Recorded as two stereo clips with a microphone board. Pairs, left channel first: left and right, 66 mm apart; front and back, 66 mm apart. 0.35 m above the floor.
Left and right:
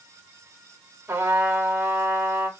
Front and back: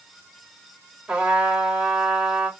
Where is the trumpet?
115° right, 0.9 m.